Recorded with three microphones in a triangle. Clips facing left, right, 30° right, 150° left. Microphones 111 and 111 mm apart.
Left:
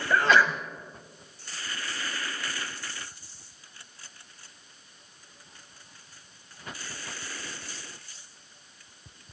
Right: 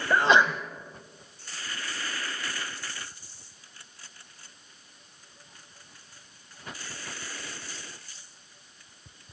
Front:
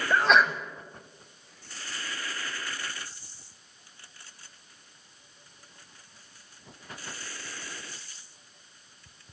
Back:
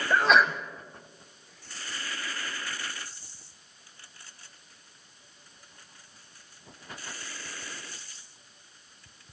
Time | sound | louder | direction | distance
0.1 | a sneeze | right 1 dB, even | 125° right | 1.0 m